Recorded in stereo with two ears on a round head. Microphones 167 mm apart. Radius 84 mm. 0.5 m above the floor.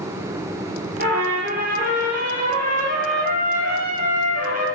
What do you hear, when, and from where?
1.0 s a trumpet: 50° right (ahead or behind), 5 m